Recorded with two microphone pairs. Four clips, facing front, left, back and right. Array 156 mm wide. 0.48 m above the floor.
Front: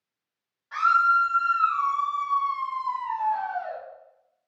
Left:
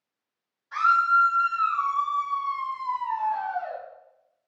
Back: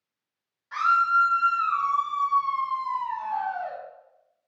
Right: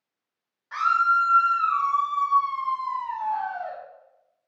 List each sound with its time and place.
0.7 s a scream: 80° right, 1.9 m; by 3.8 s 135° left, 1.4 m